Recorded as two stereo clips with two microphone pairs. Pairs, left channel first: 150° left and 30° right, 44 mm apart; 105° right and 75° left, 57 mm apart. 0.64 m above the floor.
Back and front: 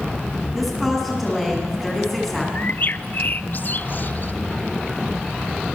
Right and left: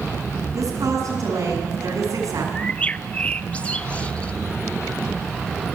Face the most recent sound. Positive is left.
turn(degrees=-170)